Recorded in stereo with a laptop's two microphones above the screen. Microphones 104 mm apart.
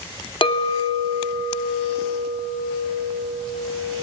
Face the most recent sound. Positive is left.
turn(degrees=50)  # may be behind; listen again after turning